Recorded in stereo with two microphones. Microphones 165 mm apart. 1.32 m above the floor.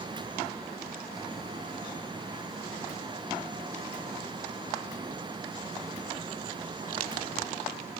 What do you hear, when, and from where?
Only background noise.